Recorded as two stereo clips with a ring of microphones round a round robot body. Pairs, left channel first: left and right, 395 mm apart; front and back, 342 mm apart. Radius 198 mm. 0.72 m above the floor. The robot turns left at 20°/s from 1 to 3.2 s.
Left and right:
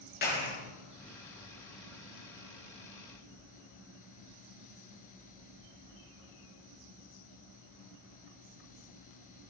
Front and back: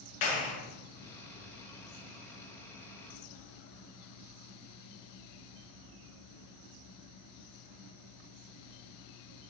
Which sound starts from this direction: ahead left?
A clap, at 0.2 s.